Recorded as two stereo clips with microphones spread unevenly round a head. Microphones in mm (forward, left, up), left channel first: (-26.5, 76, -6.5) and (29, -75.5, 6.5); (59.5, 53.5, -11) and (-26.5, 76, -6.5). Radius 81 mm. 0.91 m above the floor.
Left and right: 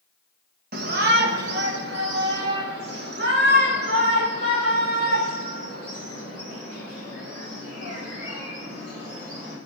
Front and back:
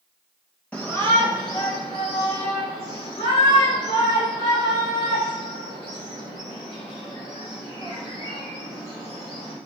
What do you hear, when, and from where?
0.7 s a shout: 90° right, 1.0 m; by 9.6 s 30° right, 5.5 m